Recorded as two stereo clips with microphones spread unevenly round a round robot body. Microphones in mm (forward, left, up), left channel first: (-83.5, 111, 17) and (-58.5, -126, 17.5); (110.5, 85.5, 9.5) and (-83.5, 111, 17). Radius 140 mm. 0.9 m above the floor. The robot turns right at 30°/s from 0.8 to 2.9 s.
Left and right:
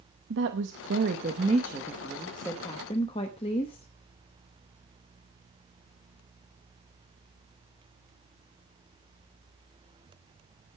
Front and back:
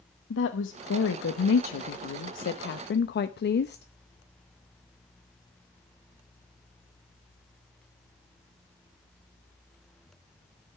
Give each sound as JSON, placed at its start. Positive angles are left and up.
{"t": 0.3, "sound": "a woman speaking", "azimuth_deg": -35, "distance_m": 0.7}